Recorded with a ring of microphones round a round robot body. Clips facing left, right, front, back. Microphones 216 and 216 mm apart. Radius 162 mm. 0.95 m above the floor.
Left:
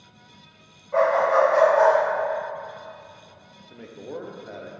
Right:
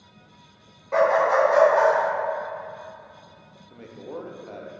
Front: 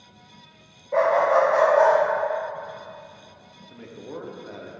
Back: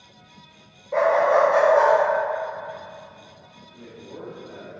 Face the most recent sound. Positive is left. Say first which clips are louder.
# left 1 dB, front 3 dB
turn(degrees=10)